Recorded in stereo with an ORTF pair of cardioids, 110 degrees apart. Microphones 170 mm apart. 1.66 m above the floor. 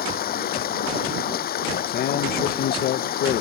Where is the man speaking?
70° left.